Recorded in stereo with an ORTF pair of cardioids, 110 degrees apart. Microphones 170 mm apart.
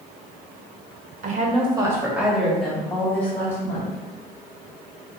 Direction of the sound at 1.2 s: 50° right.